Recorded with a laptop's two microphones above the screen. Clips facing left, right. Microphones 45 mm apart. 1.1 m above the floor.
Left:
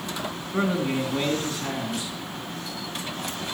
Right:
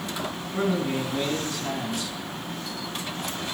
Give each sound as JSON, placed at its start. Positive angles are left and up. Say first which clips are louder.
{"t": 0.5, "sound": "a man speaking", "louder": "left 1 dB", "side_deg": 30, "distance_m": 2.5}